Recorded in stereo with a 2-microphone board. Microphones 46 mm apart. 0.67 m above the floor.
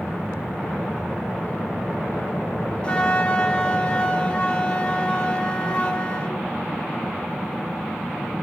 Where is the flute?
25° left (ahead or behind), 0.9 m.